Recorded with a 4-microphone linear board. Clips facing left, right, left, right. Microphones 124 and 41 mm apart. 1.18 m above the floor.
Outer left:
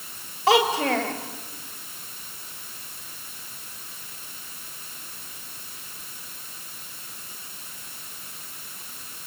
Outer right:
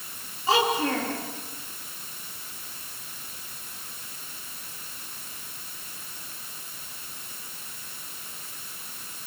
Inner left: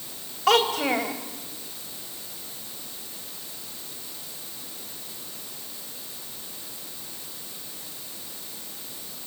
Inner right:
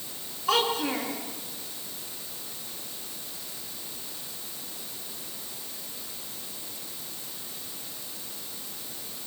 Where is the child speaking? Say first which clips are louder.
Outer left 4 dB, inner left 5 dB; 80° left, 4 m.